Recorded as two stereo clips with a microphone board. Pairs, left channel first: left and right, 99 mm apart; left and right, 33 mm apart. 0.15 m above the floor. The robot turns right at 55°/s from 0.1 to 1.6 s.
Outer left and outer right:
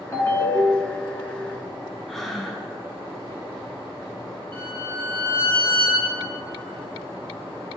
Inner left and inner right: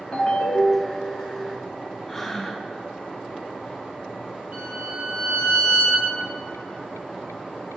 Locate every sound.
0.1 s a ringtone: 50° left, 1.2 m; by 1.1 s 105° left, 1.2 m
2.1 s breathing: 5° left (ahead or behind), 0.7 m
4.5 s a violin: 55° right (ahead or behind), 2.5 m